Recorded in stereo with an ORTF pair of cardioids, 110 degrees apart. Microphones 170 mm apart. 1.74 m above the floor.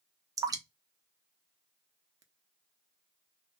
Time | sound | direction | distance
0.4 | dripping | 20° right | 0.6 m